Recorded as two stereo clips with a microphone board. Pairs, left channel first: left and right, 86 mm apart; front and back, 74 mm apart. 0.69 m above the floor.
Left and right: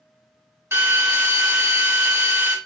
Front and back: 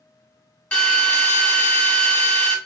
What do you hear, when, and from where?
0.7 s a drill: 60° right, 1.3 m